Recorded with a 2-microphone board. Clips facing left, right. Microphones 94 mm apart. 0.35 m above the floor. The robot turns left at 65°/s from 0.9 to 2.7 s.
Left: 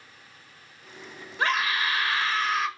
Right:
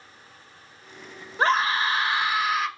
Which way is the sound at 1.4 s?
95° right.